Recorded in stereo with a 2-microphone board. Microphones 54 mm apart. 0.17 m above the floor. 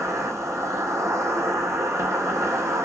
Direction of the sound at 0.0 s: 65° right (ahead or behind).